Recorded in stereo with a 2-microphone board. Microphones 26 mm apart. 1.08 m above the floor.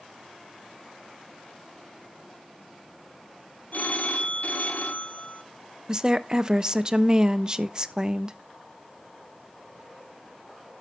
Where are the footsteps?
I don't hear footsteps.